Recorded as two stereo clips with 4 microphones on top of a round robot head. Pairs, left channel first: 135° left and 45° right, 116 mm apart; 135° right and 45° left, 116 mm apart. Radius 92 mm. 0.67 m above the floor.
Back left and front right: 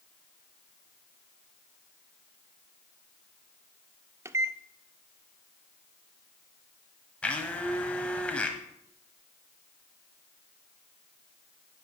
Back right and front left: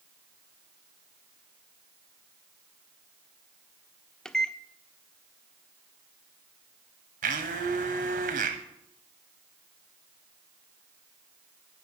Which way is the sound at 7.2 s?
55° left.